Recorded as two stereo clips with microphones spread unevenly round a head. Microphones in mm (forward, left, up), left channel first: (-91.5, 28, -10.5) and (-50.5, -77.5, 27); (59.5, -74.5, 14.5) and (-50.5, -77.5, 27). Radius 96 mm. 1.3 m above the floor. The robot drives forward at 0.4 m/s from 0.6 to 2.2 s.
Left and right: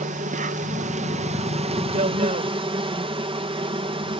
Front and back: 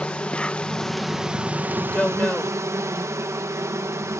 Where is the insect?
80° right; by 4.2 s 110° right.